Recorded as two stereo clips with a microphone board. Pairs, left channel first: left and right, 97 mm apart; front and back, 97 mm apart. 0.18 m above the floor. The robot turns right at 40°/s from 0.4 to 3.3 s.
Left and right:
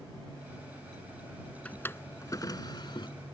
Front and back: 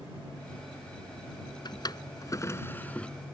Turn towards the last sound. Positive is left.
turn(degrees=85)